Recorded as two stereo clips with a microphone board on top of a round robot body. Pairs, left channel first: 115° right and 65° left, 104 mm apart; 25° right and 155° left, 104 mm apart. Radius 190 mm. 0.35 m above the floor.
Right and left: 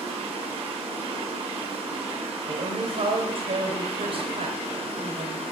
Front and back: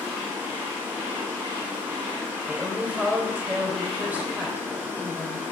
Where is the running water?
90° left, 2.5 m.